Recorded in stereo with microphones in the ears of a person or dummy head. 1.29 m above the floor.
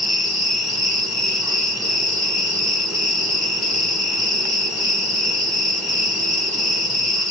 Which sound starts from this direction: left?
An insect, at 0.0 s.